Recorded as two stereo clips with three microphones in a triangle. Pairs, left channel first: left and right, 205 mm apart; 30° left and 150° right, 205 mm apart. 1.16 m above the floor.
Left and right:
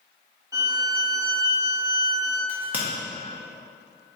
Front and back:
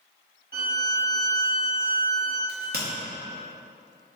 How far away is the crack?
About 0.8 m.